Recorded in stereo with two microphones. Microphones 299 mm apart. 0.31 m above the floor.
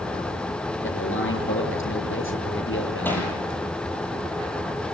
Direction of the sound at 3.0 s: 5° left (ahead or behind).